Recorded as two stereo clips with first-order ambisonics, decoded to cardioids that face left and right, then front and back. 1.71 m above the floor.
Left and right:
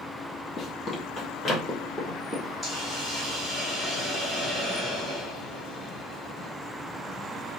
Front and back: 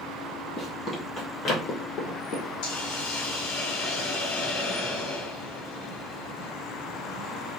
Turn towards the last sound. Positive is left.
turn(degrees=-10)